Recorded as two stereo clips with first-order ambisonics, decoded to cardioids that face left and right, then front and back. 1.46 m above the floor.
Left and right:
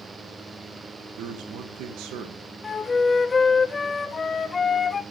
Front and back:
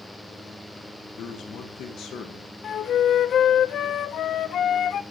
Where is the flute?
25° left, 0.5 m.